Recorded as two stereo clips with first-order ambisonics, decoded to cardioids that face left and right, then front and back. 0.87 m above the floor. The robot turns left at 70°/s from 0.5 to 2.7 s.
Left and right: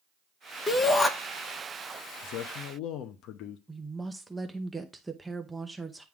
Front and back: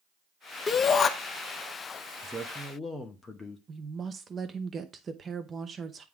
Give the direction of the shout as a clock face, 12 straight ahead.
10 o'clock.